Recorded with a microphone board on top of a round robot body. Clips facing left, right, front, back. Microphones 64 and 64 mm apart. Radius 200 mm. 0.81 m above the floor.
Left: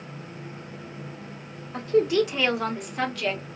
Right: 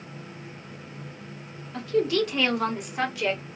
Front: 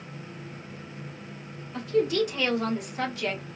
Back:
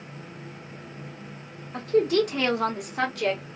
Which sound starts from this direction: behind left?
A woman speaking, at 1.7 s.